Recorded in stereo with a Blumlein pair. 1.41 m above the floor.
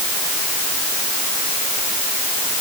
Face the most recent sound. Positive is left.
No sound to turn to.